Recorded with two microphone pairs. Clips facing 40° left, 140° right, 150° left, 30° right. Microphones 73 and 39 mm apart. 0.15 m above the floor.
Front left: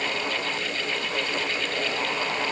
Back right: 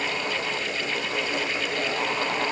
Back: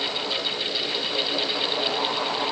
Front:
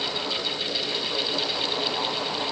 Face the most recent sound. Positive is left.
No sound to turn to.